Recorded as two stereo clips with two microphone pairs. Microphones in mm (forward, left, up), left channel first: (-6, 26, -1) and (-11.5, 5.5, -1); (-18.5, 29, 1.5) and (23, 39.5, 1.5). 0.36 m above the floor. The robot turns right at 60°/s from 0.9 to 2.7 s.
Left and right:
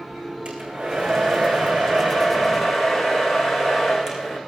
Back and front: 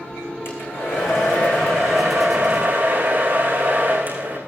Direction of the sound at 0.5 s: 140° right.